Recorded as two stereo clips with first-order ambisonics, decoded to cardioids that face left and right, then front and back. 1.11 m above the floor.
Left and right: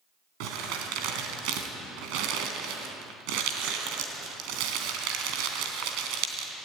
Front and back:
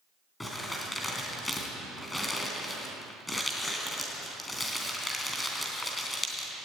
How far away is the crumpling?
About 3 m.